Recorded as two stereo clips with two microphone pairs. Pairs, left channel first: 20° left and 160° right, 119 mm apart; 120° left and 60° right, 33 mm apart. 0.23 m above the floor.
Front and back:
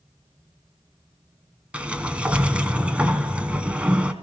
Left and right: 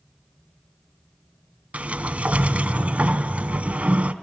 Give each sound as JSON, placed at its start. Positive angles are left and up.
{"t": 1.7, "sound": "a sliding door", "azimuth_deg": -80, "distance_m": 1.1}